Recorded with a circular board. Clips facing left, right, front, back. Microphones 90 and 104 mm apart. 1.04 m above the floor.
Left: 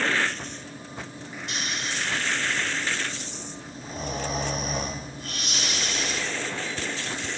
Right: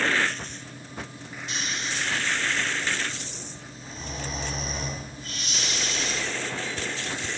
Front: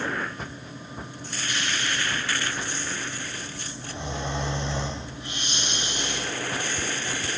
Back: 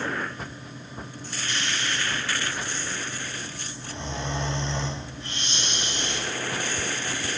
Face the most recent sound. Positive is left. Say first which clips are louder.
# even, front 1 dB
turn(degrees=75)